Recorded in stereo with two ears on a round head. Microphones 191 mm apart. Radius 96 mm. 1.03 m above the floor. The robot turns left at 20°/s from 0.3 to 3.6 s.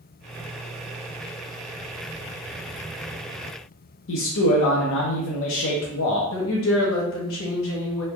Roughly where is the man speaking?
Left.